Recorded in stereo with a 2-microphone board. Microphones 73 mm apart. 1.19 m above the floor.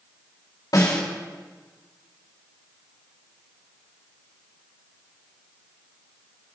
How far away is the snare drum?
About 4 m.